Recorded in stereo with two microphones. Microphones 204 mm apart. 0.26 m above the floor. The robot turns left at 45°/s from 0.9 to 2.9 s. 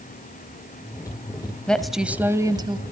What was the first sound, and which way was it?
A woman speaking, 10° left.